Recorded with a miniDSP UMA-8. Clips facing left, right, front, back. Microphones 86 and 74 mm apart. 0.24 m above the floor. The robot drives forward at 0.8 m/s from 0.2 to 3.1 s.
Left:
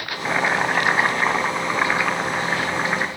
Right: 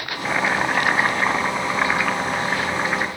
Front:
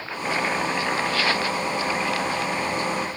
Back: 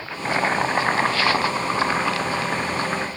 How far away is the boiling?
About 1.0 m.